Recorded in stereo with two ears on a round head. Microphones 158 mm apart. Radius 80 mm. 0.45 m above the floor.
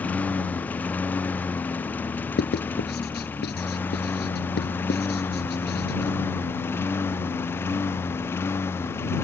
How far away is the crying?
No crying in this recording.